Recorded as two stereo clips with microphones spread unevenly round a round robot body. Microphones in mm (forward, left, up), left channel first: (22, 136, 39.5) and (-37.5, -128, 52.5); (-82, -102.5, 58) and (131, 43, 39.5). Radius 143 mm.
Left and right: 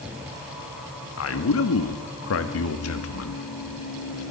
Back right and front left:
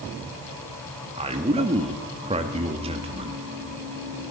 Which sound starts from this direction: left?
A man speaking, at 1.2 s.